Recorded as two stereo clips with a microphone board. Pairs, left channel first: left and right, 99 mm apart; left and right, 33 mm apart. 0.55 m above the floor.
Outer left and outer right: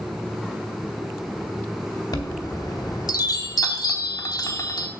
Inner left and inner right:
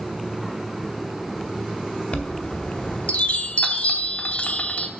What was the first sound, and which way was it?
A chime, 45° left (ahead or behind).